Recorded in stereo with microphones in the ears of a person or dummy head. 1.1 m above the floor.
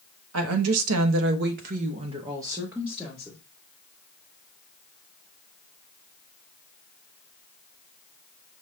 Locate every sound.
0.3 s a woman speaking: 80° right, 0.9 m; by 3.4 s centre (ahead or behind), 1.1 m